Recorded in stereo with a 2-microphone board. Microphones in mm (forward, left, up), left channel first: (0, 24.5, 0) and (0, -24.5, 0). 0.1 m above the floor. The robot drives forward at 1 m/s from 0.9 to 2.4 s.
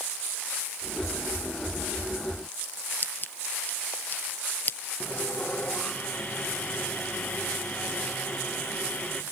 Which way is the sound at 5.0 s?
10° left (ahead or behind).